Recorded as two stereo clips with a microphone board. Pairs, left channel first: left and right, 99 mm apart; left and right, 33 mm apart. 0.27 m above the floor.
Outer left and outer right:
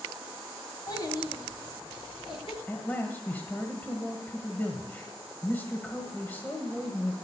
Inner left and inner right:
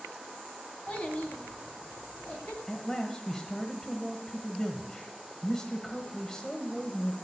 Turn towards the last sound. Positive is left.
turn(degrees=20)  # may be behind; listen again after turning